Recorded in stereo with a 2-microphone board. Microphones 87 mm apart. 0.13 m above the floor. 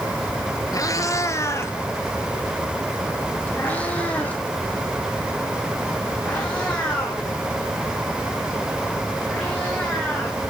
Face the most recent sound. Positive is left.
turn(degrees=5)  # may be behind; listen again after turning